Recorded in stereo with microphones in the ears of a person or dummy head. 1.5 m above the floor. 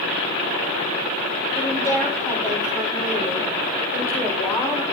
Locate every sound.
1.6 s a woman speaking: 15° left (ahead or behind), 5.5 m